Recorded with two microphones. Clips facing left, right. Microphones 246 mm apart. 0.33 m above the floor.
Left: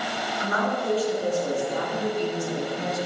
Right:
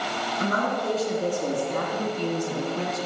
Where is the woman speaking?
40° right (ahead or behind), 4.5 m; by 3.1 s 70° right (ahead or behind), 3 m.